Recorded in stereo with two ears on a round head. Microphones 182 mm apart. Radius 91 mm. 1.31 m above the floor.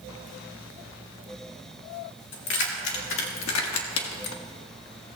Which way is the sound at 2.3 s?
60° left (ahead or behind).